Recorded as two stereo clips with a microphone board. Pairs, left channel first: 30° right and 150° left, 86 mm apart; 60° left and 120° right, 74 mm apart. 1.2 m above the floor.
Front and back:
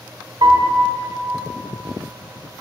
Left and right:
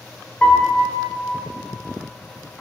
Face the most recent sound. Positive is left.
turn(degrees=130)